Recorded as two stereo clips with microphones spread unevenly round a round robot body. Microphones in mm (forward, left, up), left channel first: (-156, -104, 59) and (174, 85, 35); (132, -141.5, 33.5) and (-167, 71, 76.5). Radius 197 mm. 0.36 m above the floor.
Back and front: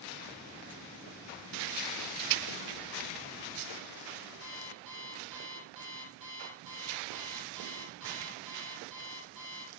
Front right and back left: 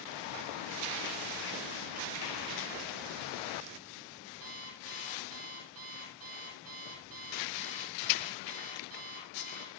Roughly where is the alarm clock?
Left.